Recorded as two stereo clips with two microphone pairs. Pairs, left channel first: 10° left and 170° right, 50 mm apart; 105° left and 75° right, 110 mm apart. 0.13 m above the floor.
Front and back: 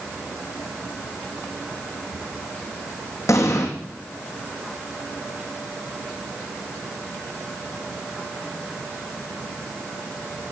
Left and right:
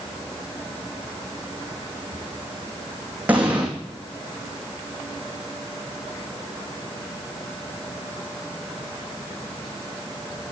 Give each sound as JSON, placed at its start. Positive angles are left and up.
{"t": 3.3, "sound": "an explosion", "azimuth_deg": 5, "distance_m": 3.5}